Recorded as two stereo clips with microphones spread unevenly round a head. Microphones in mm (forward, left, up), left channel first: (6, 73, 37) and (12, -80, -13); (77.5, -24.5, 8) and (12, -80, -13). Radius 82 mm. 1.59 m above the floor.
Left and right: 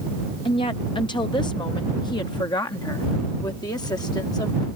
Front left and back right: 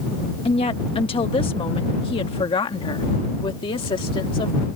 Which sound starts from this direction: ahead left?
A woman speaking, at 0.5 s.